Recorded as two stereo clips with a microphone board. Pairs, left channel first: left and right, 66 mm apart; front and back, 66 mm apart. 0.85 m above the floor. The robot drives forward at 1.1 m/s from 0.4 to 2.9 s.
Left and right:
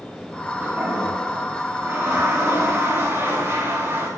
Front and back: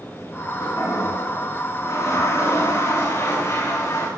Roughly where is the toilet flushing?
Ahead right.